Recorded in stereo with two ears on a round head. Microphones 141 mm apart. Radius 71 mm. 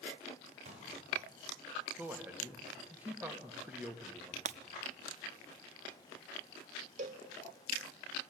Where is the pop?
45° right (ahead or behind), 5.5 m.